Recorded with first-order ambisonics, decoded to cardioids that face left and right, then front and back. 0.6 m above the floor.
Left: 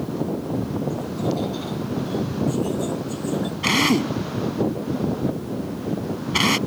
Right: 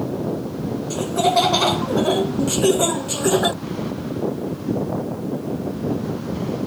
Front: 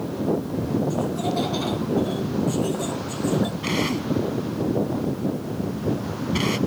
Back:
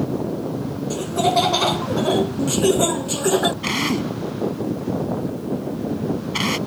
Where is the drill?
105° left.